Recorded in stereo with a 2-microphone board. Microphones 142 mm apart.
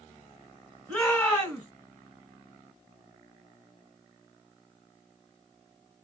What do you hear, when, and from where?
0.9 s a shout: 10° left (ahead or behind), 1.7 m